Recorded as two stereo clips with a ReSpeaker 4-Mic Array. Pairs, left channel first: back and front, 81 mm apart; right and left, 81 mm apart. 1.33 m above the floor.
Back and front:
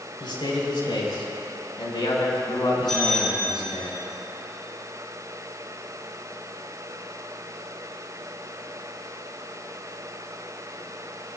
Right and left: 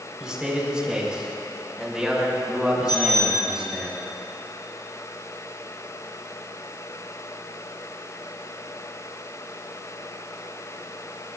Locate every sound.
0.2 s a man speaking: 170° left, 4.5 m
2.9 s a bicycle bell: 95° right, 6 m